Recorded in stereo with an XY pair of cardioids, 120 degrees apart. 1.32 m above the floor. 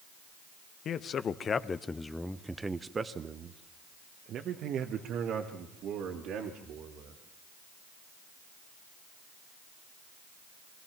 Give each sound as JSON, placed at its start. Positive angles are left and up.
{"t": 0.8, "sound": "a man speaking", "azimuth_deg": 50, "distance_m": 1.2}